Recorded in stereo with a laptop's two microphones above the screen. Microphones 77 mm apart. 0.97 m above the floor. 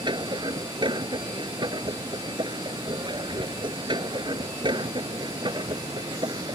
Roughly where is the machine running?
Right.